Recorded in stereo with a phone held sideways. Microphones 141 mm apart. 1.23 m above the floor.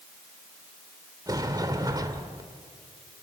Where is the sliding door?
25° right (ahead or behind), 1.4 m.